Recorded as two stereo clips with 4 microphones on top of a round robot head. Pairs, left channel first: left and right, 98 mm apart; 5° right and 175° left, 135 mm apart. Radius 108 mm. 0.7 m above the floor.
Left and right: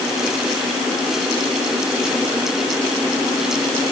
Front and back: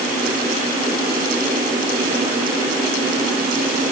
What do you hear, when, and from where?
Only background noise.